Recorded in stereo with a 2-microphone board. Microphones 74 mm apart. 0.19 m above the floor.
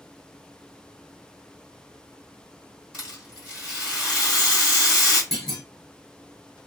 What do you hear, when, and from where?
2.9 s a rattle: 15° right (ahead or behind), 1.9 m
5.3 s a clunk: 5° left (ahead or behind), 1.2 m